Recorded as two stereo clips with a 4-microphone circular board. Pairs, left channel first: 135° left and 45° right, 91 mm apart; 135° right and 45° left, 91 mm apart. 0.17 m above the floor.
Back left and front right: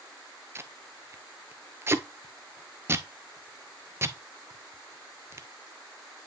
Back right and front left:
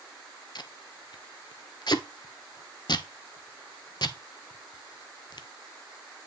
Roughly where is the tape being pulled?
Right.